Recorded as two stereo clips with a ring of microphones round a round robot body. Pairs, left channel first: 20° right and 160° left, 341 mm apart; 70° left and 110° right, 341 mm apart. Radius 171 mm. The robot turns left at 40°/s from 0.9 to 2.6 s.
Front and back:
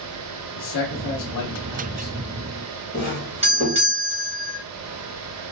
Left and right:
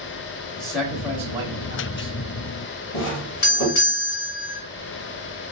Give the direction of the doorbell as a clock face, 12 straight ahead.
9 o'clock.